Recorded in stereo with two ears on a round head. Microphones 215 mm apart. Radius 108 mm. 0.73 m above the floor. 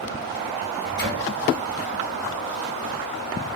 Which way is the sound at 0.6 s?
45° left (ahead or behind).